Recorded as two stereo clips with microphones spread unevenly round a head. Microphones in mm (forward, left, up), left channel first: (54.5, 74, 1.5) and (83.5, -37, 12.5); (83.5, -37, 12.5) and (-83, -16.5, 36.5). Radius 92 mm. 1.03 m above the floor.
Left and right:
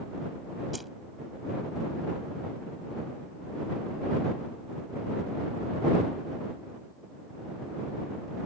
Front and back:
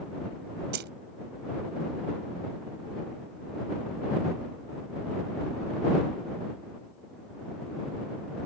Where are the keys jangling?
165° right.